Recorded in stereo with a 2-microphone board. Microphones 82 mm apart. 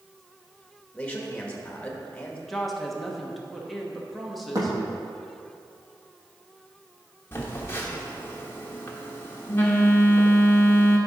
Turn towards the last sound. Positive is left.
turn(degrees=30)  # may be behind; listen again after turning